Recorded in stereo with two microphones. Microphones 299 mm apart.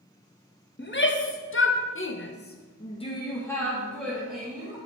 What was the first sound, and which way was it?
A shout, 35° left (ahead or behind).